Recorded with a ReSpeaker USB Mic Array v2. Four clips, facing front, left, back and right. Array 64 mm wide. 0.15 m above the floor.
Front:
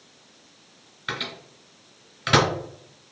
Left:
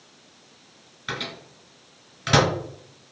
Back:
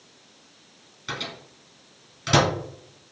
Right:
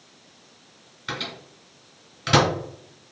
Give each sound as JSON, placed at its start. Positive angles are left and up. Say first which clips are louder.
{"t": 1.1, "sound": "a microwave", "louder": "even, front 2 dB", "azimuth_deg": 0, "distance_m": 1.1}